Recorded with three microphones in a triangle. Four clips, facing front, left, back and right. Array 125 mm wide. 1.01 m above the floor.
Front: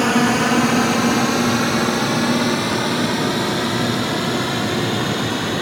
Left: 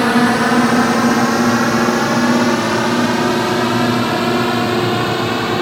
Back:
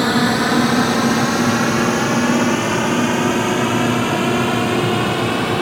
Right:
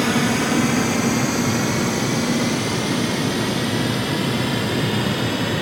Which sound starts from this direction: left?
A drone, at 0.0 s.